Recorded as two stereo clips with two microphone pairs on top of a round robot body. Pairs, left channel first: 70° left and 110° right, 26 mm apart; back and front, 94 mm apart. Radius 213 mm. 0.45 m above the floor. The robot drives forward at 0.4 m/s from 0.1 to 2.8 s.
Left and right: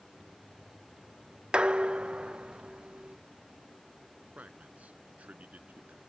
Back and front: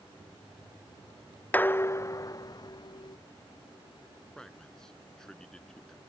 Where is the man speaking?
100° right.